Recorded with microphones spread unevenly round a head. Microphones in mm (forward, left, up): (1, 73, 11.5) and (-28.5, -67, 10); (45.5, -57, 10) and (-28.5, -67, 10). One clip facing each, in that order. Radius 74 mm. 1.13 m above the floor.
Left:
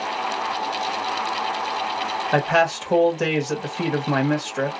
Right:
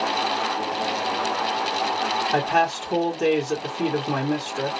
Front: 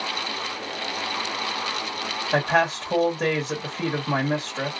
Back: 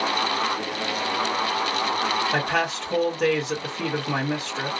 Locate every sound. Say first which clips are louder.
2.3 s a man speaking: left 3 dB, front 3 dB; 80° left, 1.4 m